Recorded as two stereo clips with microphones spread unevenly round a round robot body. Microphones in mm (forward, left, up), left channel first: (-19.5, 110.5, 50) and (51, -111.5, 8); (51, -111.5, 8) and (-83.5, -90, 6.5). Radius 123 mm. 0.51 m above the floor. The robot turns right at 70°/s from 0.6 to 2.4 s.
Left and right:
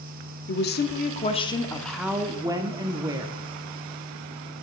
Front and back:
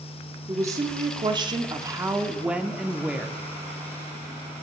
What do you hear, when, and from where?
0.5 s a woman speaking: 120° left, 0.9 m; by 3.4 s 115° right, 0.9 m